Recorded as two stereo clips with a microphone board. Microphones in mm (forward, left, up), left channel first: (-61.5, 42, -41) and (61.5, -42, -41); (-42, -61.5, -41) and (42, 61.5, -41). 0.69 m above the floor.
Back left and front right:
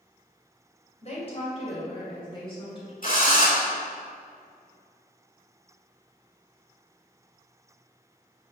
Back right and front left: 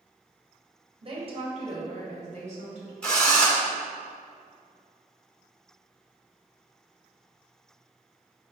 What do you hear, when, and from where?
1.0 s a woman speaking: 105° left, 2.5 m; by 2.9 s 90° left, 3 m
3.0 s a drill: 155° left, 2 m